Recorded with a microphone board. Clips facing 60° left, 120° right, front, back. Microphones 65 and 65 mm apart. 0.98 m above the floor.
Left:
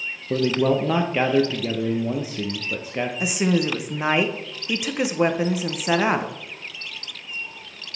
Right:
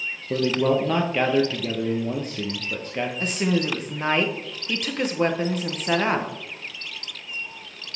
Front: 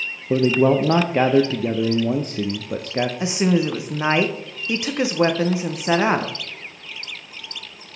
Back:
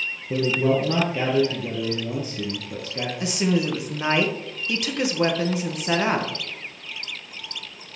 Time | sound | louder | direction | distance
0.3 | a man speaking | left 1 dB, front 5 dB | 20° right | 0.6 m
3.2 | a woman speaking | left 3 dB, front 1 dB | straight ahead | 0.6 m